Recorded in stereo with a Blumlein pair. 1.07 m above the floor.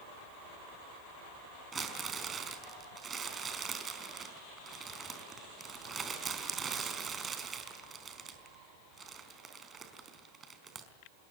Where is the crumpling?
20° right, 4 m.